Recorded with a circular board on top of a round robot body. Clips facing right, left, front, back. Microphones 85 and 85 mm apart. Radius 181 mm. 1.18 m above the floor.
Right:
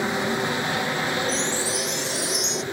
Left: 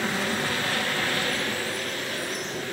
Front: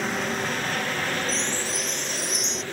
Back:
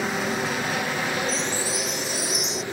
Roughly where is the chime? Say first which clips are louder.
Right 3 dB, back 2 dB; right.